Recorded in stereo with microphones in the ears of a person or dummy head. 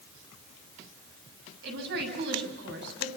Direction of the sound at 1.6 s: 65° right (ahead or behind).